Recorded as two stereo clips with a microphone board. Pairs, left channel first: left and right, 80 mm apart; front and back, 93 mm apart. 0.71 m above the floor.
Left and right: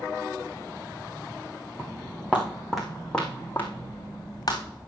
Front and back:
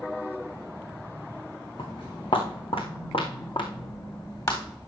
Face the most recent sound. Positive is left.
turn(degrees=50)